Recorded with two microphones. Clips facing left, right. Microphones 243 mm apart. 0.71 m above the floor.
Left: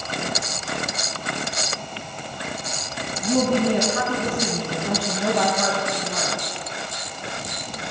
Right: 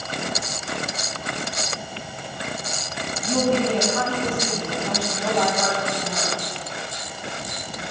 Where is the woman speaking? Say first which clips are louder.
Left 1 dB; 10° left (ahead or behind), 5.5 m; by 6.4 s 25° left (ahead or behind), 3.5 m.